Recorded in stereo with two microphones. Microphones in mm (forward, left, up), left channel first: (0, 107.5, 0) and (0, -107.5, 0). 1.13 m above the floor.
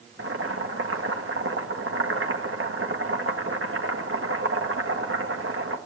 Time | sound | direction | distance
0.2 | boiling | 75° right (ahead or behind) | 1.8 m